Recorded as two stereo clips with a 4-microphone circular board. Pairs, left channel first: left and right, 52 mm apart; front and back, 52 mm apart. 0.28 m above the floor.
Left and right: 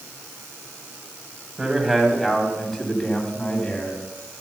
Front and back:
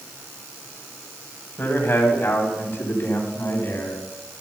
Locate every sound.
1.6 s a man speaking: 15° right, 2 m; by 4.0 s 30° left, 2.5 m